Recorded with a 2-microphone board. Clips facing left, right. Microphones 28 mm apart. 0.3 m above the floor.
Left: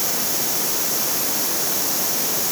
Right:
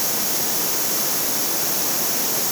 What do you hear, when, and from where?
Only background noise.